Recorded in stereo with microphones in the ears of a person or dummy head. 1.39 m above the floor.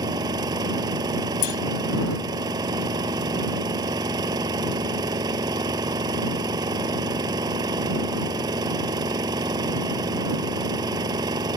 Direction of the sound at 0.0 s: 25° right (ahead or behind).